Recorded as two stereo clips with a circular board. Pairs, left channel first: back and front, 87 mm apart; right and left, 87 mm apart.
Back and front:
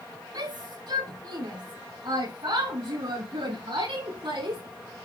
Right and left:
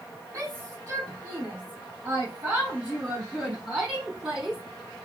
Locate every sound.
0.3 s a shout: 25° left, 5.5 m; by 4.6 s 5° left, 6 m